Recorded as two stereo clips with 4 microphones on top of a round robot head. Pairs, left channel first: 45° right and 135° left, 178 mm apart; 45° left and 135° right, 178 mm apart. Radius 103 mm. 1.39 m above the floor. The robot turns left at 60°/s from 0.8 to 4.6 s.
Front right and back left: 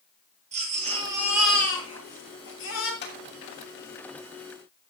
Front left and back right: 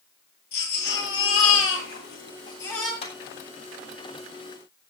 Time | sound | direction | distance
0.5 | a baby crying | 80° left | 9 m
3.0 | a clap | 15° right | 7.5 m